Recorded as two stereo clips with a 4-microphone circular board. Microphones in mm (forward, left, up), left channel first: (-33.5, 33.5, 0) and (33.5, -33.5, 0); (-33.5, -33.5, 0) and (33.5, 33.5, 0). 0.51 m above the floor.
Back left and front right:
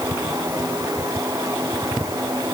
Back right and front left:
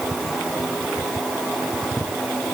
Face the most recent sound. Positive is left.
No sound to turn to.